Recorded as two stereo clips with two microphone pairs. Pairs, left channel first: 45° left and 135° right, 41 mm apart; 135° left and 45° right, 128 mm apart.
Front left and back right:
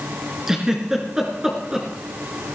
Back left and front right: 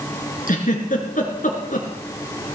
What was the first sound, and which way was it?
A giggle, 150° left.